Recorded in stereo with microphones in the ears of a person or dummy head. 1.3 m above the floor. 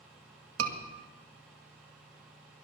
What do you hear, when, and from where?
0.6 s a scream: 80° right, 2 m